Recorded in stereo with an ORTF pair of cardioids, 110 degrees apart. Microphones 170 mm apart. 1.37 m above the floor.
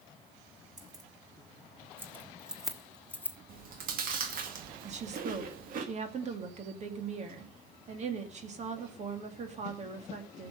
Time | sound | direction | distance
0.8 | keys jangling | 25° right | 2.5 m
3.5 | chewing | 55° right | 2 m
4.8 | a woman speaking | 40° right | 2.5 m